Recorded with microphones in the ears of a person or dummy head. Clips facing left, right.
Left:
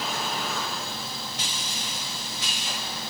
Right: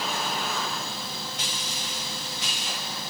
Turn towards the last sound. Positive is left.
No sound to turn to.